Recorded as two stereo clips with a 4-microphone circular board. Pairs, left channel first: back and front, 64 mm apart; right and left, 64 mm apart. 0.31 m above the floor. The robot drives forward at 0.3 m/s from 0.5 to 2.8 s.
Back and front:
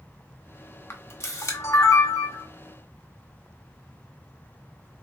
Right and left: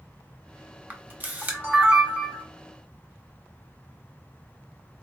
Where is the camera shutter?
140° left, 0.8 m; by 2.4 s 155° left, 1.2 m.